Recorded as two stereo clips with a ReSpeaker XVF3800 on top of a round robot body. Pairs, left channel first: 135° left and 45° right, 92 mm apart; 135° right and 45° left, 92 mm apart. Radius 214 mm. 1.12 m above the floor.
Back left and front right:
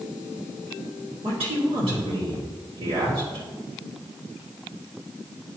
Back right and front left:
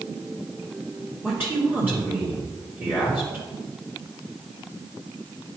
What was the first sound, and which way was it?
A man speaking, 25° right.